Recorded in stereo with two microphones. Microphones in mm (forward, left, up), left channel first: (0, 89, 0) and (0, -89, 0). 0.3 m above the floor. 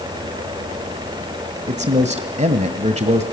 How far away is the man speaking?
About 1.4 m.